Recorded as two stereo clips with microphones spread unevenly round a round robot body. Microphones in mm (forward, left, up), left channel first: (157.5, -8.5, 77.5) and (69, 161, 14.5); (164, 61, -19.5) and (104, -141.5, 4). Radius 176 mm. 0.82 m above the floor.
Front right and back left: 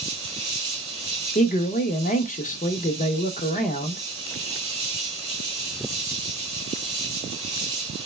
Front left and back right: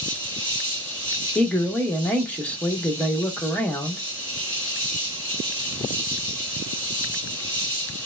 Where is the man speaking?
5° right, 0.7 m.